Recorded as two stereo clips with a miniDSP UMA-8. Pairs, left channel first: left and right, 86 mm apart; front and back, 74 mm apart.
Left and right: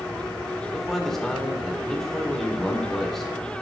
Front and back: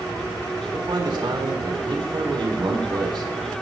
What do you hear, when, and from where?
0.7 s a man speaking: 175° left, 1.8 m